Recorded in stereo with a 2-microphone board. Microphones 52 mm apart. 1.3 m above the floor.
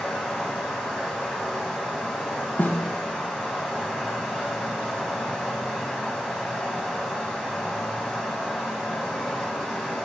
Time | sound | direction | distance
0.0 | running water | 5° right (ahead or behind) | 1.8 m
2.6 | a snare drum | 35° left (ahead or behind) | 0.7 m